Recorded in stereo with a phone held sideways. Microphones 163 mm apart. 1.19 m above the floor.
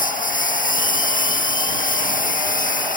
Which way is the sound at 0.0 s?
55° left (ahead or behind).